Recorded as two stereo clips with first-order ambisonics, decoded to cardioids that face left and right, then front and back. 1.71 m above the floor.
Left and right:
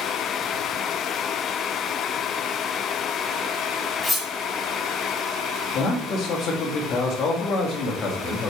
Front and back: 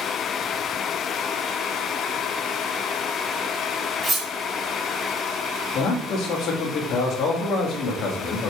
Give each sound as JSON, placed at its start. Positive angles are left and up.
{"t": 4.0, "sound": "cutlery clinking", "azimuth_deg": 170, "distance_m": 0.9}
{"t": 5.8, "sound": "a man speaking", "azimuth_deg": 50, "distance_m": 0.9}